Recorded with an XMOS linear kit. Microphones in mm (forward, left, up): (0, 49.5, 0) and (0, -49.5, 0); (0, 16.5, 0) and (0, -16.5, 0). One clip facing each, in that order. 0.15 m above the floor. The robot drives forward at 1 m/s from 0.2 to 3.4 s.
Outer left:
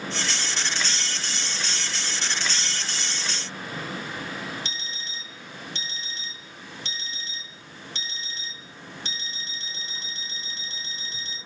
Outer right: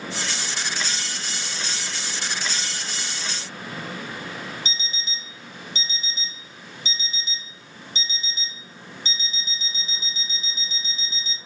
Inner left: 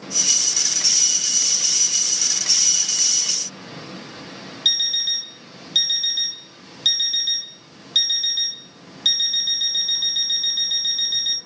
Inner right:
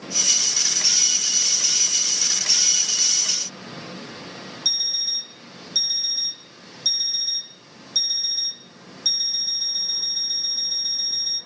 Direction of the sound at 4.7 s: 65° left (ahead or behind).